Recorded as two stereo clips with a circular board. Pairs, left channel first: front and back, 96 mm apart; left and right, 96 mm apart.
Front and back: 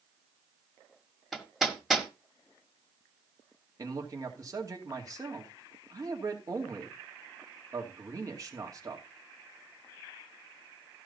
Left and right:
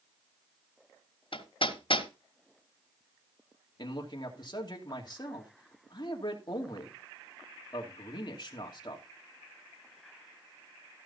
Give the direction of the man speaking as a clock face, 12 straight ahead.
8 o'clock.